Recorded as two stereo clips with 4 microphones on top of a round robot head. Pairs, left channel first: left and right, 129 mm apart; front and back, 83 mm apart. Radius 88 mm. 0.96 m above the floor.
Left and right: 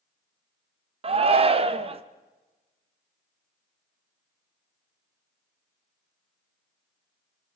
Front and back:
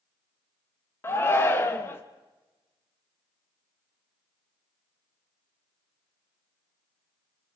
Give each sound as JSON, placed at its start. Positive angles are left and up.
{"t": 1.0, "sound": "a shout", "azimuth_deg": -60, "distance_m": 1.4}